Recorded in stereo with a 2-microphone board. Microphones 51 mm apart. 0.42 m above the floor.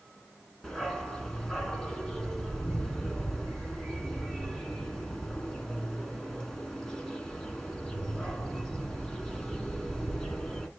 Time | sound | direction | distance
0.6 | a dog barking | 10° left (ahead or behind) | 1.4 m